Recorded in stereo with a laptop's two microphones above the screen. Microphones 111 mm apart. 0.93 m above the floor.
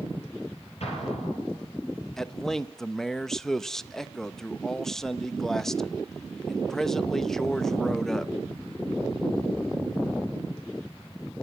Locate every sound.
0.8 s an explosion: 70° left (ahead or behind), 8 m
2.2 s a man speaking: 5° left (ahead or behind), 0.5 m